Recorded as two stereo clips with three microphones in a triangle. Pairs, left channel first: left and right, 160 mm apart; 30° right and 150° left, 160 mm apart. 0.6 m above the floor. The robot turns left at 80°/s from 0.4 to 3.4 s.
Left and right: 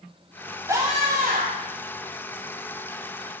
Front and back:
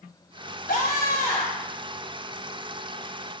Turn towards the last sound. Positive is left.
turn(degrees=125)